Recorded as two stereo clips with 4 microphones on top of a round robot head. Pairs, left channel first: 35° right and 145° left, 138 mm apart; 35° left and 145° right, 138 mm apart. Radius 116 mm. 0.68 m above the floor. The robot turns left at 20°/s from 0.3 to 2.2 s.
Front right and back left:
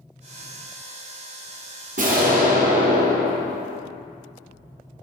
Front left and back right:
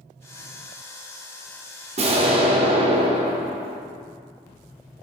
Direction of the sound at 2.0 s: 170° left.